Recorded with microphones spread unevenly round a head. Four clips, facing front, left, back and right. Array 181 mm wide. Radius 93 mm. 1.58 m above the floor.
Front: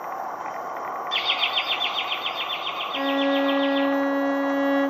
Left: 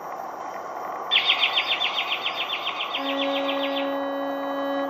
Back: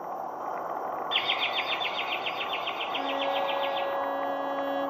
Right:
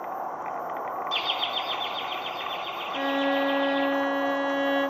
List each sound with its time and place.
1.1 s laughter: 50° left, 0.5 m; by 3.8 s 95° left, 4.5 m
2.9 s a violin: 25° right, 1.5 m